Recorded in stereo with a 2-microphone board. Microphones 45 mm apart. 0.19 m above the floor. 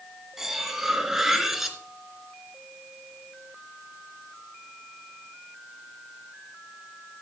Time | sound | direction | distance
0.4 | cutlery clinking | 5° right (ahead or behind) | 1.6 m